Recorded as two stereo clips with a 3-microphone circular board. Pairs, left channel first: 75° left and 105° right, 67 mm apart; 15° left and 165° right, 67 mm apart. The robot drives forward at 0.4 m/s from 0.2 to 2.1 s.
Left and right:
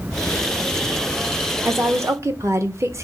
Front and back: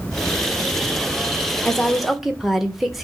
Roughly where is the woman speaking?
Ahead right.